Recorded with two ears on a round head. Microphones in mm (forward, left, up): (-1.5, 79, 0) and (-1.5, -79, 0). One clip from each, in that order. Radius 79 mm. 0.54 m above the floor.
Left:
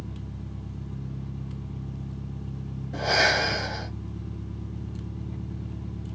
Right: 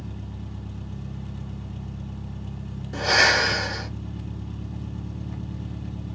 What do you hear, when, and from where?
0.0 s an engine running: 60° right (ahead or behind), 1.1 m
2.9 s breathing: 60° right (ahead or behind), 1.6 m